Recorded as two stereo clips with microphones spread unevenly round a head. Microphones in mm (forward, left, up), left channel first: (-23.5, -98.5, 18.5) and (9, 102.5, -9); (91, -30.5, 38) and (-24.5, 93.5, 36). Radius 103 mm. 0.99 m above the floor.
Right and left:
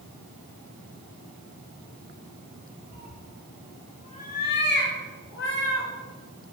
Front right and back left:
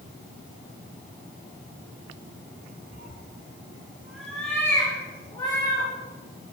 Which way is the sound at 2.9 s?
100° left.